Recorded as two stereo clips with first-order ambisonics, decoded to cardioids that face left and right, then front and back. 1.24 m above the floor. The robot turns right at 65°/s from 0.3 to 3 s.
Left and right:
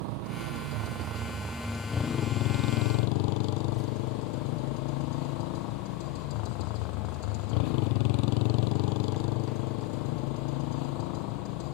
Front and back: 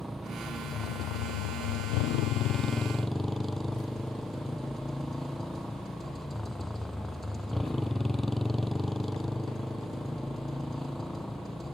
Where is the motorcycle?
95° right; by 11.8 s 85° left.